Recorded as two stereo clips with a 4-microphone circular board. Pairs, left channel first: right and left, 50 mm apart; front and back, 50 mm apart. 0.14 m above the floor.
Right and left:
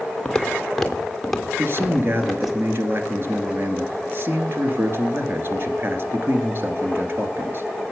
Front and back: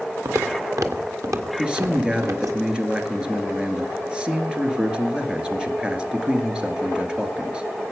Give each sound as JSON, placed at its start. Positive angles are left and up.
{"t": 0.2, "sound": "footsteps", "azimuth_deg": -165, "distance_m": 1.4}
{"t": 1.6, "sound": "a man speaking", "azimuth_deg": 110, "distance_m": 2.0}